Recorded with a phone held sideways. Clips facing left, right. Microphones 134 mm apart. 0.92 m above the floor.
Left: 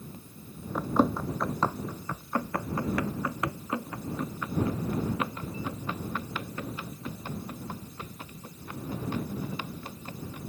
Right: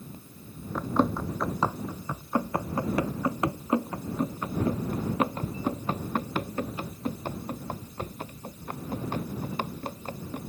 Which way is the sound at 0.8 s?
10° left (ahead or behind).